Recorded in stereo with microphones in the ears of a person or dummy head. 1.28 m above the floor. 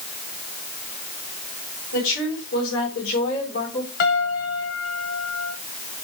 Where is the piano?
50° left (ahead or behind), 1.8 m.